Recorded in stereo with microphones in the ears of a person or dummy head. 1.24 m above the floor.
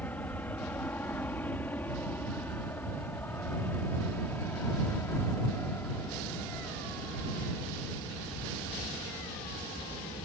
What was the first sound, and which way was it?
An aircraft, 10° left (ahead or behind).